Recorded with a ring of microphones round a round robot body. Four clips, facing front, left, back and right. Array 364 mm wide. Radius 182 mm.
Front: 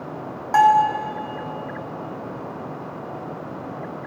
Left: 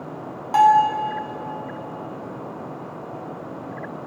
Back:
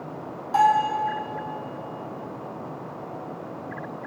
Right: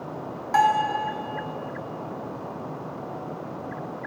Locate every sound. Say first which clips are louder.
0.5 s a bell: left 6 dB, front 4 dB; 15° left, 0.9 m